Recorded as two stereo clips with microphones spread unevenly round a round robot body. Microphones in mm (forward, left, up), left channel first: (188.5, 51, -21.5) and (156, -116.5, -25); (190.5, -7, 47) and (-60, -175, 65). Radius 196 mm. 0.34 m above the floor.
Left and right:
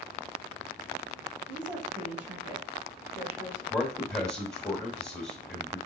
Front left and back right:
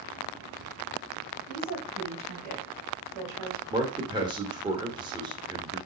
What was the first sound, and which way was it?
A woman speaking, 165° right.